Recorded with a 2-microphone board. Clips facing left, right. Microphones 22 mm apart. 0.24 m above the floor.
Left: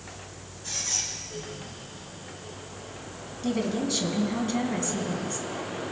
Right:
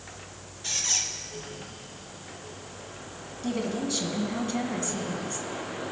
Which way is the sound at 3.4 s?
10° left (ahead or behind).